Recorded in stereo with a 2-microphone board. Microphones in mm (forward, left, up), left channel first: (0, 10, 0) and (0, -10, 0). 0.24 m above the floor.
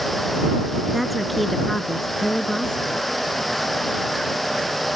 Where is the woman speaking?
5° right (ahead or behind); by 3.0 s 45° left (ahead or behind).